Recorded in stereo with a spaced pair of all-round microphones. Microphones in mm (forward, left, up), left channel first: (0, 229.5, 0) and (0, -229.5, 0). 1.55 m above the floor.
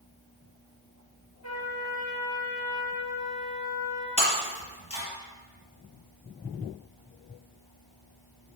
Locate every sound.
1.4 s a trumpet: 35° left (ahead or behind), 5.5 m
4.2 s breaking glass: 30° left (ahead or behind), 4.5 m